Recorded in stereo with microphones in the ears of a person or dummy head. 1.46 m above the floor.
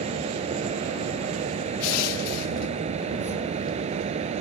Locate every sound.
0.0 s a fan: 35° right (ahead or behind)
1.8 s crushing: 85° left